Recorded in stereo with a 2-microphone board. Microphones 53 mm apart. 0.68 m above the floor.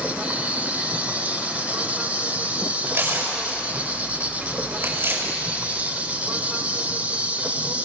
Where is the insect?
25° right (ahead or behind), 1.2 m.